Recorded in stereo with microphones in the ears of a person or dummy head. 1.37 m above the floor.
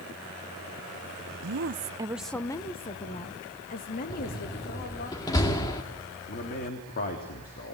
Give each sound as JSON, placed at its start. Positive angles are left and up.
{"t": 1.4, "sound": "a woman speaking", "side_deg": -65, "distance_m": 1.0}
{"t": 4.1, "sound": "a door slam", "side_deg": 15, "distance_m": 2.0}
{"t": 6.3, "sound": "a man speaking", "side_deg": 40, "distance_m": 3.5}